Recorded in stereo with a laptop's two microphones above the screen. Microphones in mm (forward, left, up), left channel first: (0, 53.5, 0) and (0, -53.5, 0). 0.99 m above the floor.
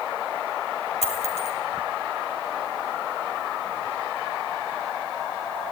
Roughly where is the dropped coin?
Left.